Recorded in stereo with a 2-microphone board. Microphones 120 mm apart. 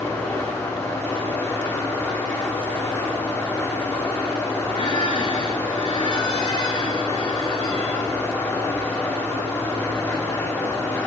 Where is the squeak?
50° left (ahead or behind), 1.2 m.